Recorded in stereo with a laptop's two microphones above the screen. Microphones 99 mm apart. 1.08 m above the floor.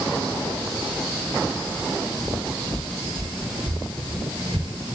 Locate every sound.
2.2 s footsteps: 50° right (ahead or behind), 6 m; by 4.9 s 60° right (ahead or behind), 5.5 m